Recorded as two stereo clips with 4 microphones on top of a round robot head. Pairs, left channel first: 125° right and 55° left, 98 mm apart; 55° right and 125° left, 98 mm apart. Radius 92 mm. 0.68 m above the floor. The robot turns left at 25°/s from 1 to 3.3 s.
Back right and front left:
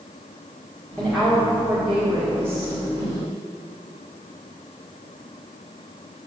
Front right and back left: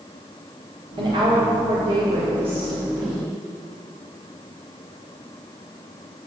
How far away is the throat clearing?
I don't hear throat clearing.